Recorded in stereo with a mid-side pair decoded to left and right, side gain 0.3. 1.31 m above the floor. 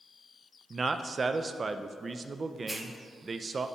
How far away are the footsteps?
I don't hear footsteps.